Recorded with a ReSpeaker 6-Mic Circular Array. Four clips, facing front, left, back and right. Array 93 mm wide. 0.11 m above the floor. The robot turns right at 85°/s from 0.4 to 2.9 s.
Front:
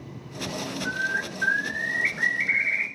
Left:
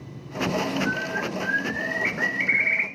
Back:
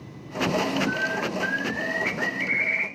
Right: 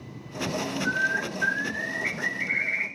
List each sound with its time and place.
0.8 s a bird: 75° right, 1.3 m; by 2.9 s 95° left, 1.3 m